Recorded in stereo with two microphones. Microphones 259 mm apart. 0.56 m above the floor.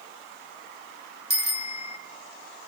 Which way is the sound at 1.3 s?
60° right (ahead or behind).